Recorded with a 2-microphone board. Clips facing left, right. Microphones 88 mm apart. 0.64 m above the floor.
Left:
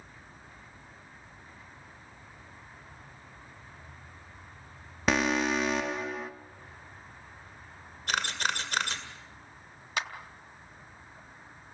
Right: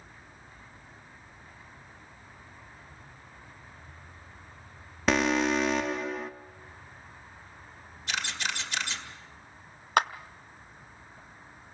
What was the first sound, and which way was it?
An alarm, centre (ahead or behind).